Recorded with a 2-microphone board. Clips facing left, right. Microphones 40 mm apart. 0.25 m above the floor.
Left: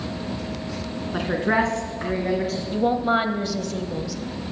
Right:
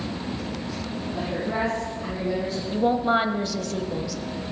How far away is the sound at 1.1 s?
About 2.5 m.